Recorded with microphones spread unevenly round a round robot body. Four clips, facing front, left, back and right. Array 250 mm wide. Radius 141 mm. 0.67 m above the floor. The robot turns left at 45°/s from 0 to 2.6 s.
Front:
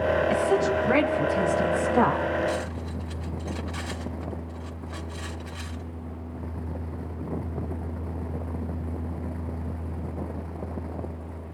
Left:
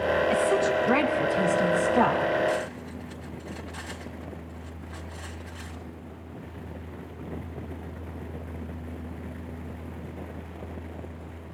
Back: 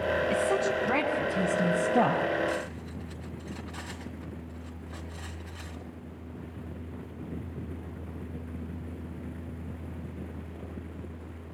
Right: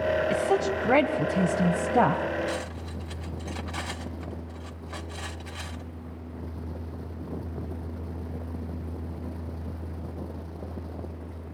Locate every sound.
0.3 s a woman speaking: 45° right, 4 m; by 2.2 s 135° right, 4 m
2.5 s cutlery clinking: 70° right, 2.5 m; by 5.8 s 75° right, 2.5 m